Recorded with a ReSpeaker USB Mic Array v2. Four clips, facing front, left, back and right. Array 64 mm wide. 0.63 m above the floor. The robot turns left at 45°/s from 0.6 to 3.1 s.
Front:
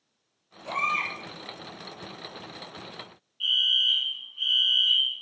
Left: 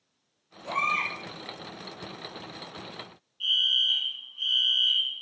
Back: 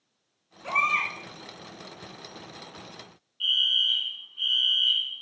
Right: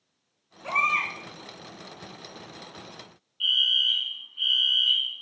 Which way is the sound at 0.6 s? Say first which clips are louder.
Right 2 dB, back 2 dB; 120° right.